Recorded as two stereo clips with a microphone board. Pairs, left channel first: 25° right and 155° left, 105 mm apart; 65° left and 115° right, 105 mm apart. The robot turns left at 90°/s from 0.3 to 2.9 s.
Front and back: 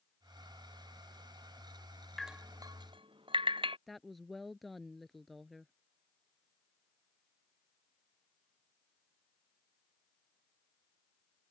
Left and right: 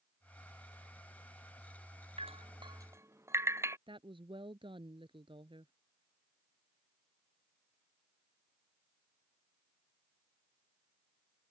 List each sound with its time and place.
2.2 s dripping: 110° right; by 3.8 s 175° right
3.9 s a woman speaking: 110° right